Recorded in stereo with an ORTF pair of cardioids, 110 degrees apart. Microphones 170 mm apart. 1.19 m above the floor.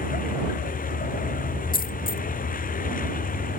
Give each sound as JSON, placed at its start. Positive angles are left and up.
{"t": 0.0, "sound": "a vehicle", "azimuth_deg": 60}
{"t": 1.7, "sound": "a dropped coin", "azimuth_deg": 65}